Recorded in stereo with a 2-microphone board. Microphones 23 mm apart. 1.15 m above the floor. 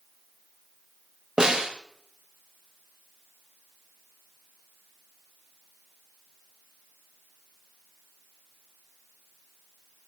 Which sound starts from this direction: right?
A snare drum, at 1.4 s.